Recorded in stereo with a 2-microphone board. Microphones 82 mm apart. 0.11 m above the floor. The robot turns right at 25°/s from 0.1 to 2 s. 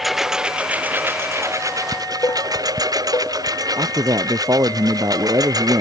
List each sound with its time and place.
0.0 s a lawn mower: straight behind; by 5.8 s 130° right
1.9 s dishes clattering: 45° left (ahead or behind)
3.8 s a man speaking: 50° right (ahead or behind)